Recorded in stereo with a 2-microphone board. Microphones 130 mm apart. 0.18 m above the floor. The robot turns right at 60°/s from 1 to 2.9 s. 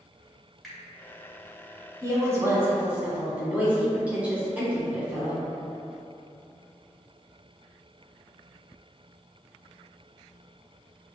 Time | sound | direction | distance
0.6 | a finger snap | centre (ahead or behind) | 1.6 m
2.0 | a woman speaking | 25° right (ahead or behind) | 1.1 m